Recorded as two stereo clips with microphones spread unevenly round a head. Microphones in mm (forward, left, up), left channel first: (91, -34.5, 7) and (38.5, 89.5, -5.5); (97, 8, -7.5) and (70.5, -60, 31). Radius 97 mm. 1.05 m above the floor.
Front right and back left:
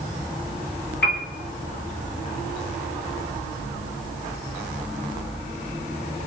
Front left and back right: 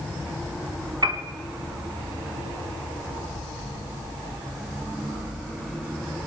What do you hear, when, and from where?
1.0 s a piano: 75° right, 2.5 m